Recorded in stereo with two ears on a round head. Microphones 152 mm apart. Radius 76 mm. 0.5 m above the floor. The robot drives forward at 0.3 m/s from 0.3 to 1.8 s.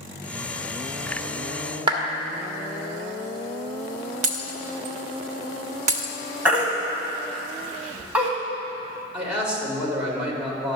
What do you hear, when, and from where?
1.9 s a clap: 30° right (ahead or behind), 1.4 m
4.2 s breaking glass: 45° right (ahead or behind), 0.8 m
6.5 s a baby crying: 5° right (ahead or behind), 1.5 m
9.1 s a man speaking: 5° right (ahead or behind), 2 m